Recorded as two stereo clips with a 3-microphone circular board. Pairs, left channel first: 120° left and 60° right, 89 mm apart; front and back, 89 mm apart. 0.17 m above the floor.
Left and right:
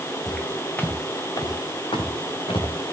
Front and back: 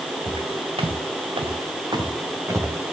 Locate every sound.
0.3 s footsteps: 155° right, 2 m; by 2.9 s 120° left, 2.5 m